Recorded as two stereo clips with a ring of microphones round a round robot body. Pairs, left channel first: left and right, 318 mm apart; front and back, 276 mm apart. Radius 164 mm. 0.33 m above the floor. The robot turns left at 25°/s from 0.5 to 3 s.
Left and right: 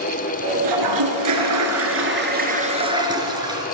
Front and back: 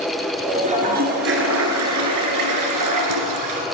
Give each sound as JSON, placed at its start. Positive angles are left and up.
{"t": 0.6, "sound": "a toilet flushing", "azimuth_deg": -110, "distance_m": 3.0}